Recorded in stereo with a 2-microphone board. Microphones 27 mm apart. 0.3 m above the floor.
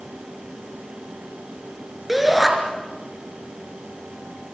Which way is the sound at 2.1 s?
Centre (ahead or behind).